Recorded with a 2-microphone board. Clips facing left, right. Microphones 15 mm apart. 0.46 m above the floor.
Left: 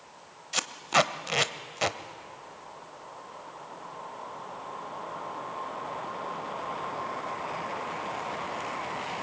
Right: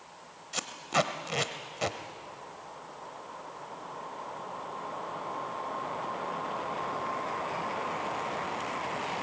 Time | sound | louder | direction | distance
0.5 | tape being pulled | left 4 dB | 25° left (ahead or behind) | 0.7 m